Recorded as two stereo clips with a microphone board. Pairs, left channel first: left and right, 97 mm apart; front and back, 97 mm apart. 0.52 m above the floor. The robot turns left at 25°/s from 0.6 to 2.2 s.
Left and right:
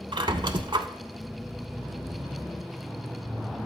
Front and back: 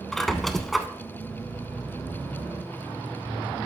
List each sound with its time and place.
0.1 s a squeak: 85° right, 0.6 m; by 0.9 s 90° right, 0.6 m